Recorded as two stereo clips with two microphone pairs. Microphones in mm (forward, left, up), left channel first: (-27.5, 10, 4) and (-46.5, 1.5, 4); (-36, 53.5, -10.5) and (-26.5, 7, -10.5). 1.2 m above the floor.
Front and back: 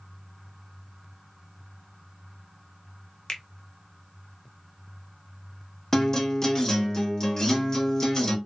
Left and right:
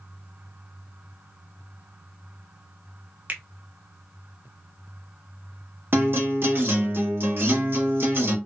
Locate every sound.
3.3 s a finger snap: 20° right, 0.6 m
5.9 s a guitar: 40° right, 1.0 m